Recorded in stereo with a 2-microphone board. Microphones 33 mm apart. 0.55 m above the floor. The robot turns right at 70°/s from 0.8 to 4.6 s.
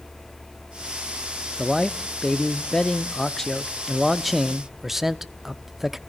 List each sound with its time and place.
1.6 s a man speaking: centre (ahead or behind), 0.6 m; by 6.0 s 10° right (ahead or behind), 0.6 m